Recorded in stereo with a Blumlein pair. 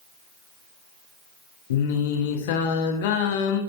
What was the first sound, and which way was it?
Singing, 55° left.